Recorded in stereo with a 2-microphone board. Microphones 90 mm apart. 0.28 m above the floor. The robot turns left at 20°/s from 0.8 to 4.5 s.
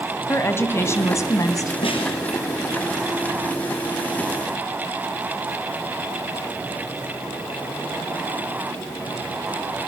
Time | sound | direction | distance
0.3 | a woman speaking | 30° left (ahead or behind) | 1.9 m
1.8 | a snare drum | 80° left | 4 m